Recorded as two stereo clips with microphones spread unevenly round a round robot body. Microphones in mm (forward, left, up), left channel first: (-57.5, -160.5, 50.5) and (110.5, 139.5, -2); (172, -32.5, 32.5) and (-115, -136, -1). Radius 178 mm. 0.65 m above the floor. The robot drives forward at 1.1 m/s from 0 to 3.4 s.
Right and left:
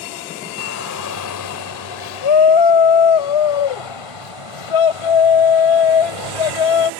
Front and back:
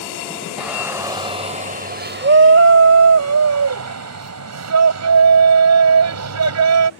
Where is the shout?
70° right; by 6.9 s 125° right.